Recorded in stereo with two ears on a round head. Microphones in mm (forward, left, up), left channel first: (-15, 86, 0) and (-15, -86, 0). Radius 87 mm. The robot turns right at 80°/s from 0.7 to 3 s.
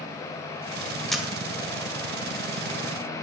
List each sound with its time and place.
1.1 s a camera shutter: centre (ahead or behind), 1.1 m; by 1.3 s 10° right (ahead or behind), 1.1 m